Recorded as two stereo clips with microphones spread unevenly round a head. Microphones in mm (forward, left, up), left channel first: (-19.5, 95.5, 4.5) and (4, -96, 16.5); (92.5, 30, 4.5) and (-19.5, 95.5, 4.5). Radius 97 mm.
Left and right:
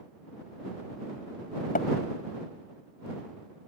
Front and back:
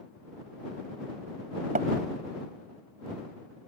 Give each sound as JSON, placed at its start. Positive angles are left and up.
{"t": 1.8, "sound": "tapping", "azimuth_deg": 145}